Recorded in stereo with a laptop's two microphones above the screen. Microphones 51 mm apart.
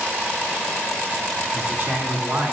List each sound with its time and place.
1.5 s a man speaking: 40° right (ahead or behind), 2 m